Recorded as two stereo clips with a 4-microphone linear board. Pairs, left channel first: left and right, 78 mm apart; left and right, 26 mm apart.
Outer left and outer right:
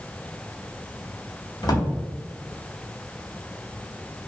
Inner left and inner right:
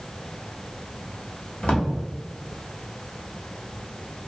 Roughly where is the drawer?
Left.